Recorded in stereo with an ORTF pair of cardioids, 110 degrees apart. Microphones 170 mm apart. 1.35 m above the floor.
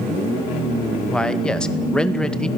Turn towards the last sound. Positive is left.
turn(degrees=5)